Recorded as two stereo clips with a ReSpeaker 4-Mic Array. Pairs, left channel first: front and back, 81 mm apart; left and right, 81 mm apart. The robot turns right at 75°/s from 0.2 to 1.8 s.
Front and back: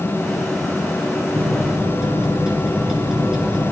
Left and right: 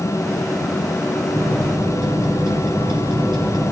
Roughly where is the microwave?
Behind right.